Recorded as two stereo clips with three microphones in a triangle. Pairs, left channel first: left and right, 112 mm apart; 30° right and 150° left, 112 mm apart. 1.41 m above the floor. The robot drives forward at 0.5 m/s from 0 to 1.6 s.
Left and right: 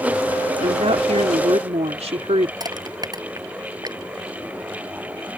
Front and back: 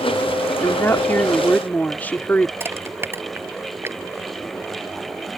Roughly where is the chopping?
I don't hear chopping.